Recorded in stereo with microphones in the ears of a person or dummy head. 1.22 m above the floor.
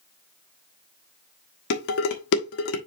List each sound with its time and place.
1.7 s dishes clattering: 65° left (ahead or behind), 1.5 m